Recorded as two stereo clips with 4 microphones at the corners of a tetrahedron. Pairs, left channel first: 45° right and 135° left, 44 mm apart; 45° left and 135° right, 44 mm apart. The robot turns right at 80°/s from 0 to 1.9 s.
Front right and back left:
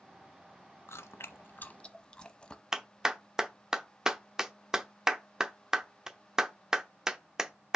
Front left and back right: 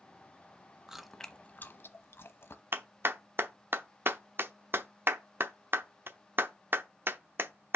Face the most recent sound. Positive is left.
turn(degrees=-150)